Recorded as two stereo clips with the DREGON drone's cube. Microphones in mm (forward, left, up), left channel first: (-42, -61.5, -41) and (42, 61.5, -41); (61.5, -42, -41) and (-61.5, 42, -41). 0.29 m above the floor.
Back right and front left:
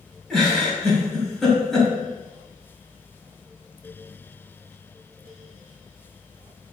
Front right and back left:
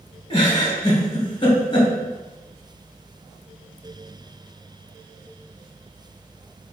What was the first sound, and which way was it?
A giggle, 35° right.